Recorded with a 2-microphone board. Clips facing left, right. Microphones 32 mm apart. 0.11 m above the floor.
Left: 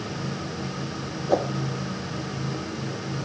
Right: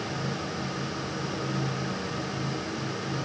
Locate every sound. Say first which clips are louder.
1.3 s a whoosh: left 9 dB; 65° left (ahead or behind)